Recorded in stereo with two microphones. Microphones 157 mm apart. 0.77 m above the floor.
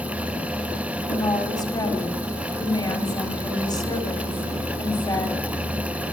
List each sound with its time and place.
1.1 s a woman speaking: 25° left (ahead or behind), 1.8 m